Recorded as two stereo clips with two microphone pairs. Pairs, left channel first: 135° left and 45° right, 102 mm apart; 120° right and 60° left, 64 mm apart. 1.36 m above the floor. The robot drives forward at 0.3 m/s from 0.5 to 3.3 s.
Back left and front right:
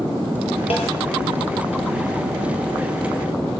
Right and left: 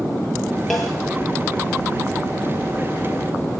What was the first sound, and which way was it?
A snare drum, 155° left.